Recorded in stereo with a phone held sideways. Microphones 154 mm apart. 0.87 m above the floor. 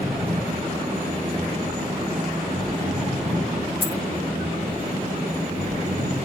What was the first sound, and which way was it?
An engine running, 85° right.